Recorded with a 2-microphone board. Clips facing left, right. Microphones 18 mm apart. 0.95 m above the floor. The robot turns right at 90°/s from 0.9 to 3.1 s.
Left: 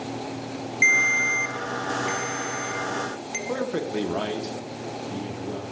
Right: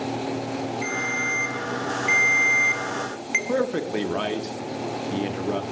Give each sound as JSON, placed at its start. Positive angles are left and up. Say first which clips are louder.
{"t": 0.8, "sound": "a ringtone", "louder": "left 9 dB", "azimuth_deg": 120, "distance_m": 0.7}
{"t": 3.5, "sound": "a man speaking", "louder": "left 1 dB", "side_deg": -55, "distance_m": 0.6}